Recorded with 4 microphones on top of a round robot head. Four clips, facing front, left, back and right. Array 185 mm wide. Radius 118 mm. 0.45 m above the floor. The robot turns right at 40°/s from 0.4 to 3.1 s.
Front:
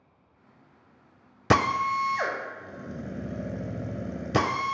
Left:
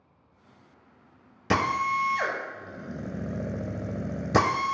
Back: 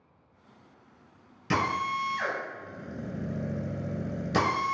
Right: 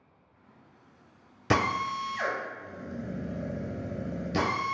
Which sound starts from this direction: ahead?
A drill, at 1.5 s.